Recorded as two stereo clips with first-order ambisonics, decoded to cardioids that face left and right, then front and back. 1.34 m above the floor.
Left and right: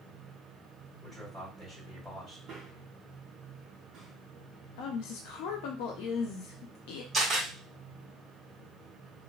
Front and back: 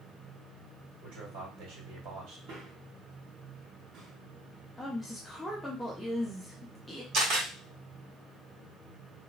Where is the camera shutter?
170° right, 1.4 m.